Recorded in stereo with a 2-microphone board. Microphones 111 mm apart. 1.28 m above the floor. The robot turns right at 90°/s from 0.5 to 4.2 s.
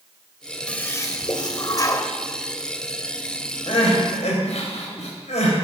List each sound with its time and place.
0.7 s a toilet flushing: 15° left, 1.2 m; by 2.1 s 145° left, 1.2 m
3.7 s crying: 45° left (ahead or behind), 4 m; by 5.6 s 85° left, 4 m